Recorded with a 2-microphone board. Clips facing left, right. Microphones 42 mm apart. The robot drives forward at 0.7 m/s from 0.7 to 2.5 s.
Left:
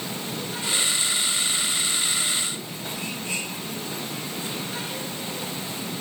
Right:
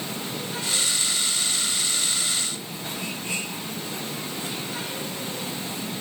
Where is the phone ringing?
No phone ringing in this recording.